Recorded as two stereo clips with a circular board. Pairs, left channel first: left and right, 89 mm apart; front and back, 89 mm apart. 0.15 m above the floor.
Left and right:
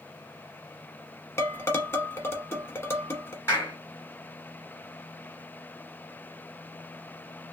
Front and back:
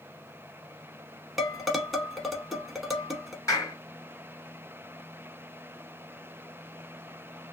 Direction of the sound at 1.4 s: 95° left.